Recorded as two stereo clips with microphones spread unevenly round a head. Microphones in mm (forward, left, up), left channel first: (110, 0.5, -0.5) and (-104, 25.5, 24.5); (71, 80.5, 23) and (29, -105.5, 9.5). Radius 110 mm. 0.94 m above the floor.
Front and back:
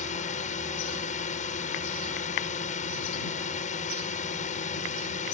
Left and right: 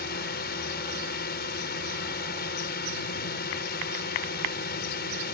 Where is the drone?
45° left.